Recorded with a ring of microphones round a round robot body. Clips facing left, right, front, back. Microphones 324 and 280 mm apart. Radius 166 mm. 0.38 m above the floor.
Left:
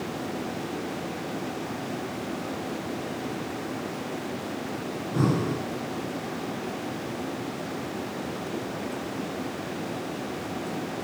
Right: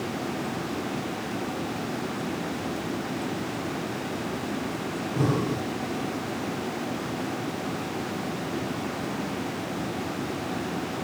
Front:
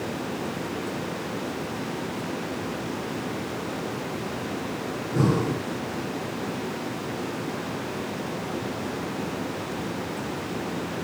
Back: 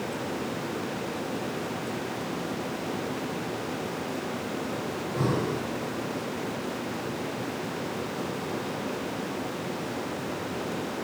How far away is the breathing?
About 4 m.